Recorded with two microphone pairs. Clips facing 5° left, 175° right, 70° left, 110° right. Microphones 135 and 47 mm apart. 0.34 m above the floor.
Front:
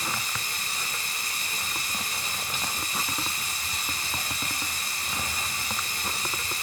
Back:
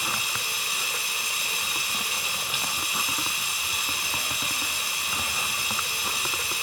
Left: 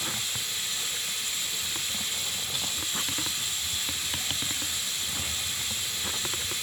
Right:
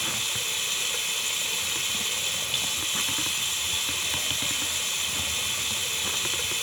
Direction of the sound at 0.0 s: 95° right.